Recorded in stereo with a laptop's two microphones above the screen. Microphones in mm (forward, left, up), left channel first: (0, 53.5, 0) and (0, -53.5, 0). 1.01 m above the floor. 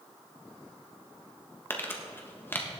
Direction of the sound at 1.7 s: 20° left (ahead or behind).